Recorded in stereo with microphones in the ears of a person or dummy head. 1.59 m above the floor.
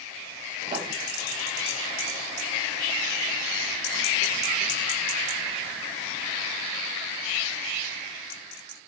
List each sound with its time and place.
0.7 s writing: 25° right (ahead or behind), 1.4 m